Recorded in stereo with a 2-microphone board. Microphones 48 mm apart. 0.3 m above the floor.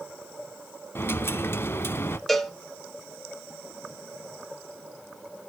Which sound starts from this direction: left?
A dropped coin, at 0.9 s.